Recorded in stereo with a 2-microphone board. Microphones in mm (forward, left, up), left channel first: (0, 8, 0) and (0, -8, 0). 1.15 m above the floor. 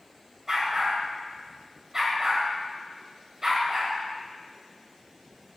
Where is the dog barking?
35° right (ahead or behind), 2 m.